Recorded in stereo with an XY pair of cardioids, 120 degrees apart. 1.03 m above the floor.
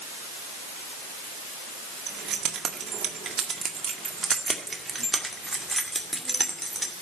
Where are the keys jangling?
60° right, 2.0 m; by 6.9 s 5° left, 3 m.